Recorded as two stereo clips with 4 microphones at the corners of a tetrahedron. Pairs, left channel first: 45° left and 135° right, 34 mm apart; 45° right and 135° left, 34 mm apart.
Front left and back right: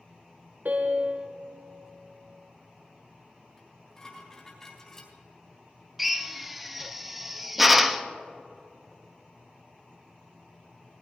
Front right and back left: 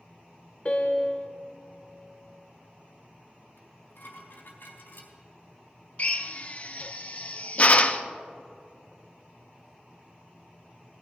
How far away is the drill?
About 0.6 m.